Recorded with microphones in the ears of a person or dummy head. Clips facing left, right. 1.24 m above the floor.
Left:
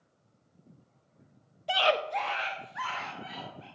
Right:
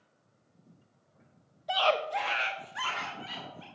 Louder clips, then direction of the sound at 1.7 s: Left 1 dB; 35° left (ahead or behind).